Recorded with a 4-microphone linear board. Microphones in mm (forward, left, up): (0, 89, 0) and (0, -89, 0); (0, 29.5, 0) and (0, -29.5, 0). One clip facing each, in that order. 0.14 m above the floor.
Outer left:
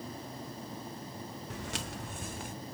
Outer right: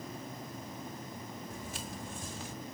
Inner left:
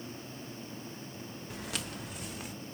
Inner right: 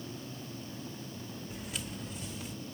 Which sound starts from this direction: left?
Footsteps, at 1.5 s.